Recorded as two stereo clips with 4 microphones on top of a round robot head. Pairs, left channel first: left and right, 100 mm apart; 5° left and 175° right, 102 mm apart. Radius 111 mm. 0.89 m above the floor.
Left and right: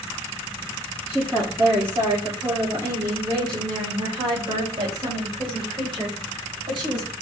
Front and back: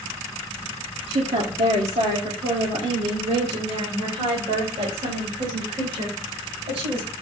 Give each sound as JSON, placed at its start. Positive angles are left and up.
{"t": 1.1, "sound": "a woman speaking", "azimuth_deg": -170, "distance_m": 1.6}